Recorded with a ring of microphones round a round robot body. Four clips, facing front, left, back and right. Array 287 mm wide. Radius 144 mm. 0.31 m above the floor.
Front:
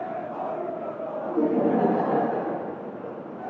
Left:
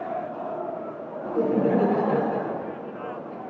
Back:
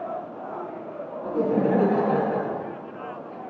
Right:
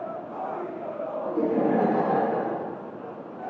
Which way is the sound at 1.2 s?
145° left.